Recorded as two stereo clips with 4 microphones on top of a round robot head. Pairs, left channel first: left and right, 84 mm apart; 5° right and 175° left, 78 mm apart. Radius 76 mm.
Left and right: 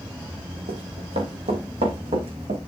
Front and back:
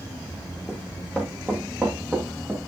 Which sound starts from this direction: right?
Running footsteps, at 0.7 s.